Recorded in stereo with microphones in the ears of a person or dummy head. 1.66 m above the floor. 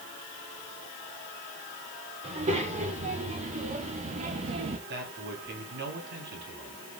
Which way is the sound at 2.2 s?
35° right (ahead or behind).